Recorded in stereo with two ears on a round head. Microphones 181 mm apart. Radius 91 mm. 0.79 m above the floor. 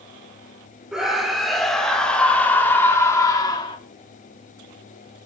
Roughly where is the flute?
I don't hear a flute.